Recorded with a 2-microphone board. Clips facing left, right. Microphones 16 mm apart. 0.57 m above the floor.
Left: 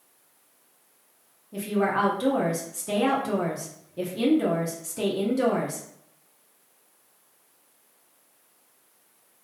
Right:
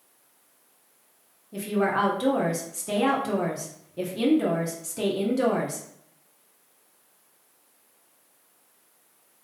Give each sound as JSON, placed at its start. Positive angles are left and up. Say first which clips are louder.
{"t": 1.5, "sound": "a woman speaking", "louder": "even", "side_deg": -10, "distance_m": 0.6}